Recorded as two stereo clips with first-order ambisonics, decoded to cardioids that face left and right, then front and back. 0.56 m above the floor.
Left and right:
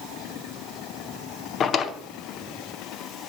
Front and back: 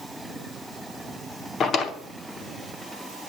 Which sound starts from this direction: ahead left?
A drawer, at 1.6 s.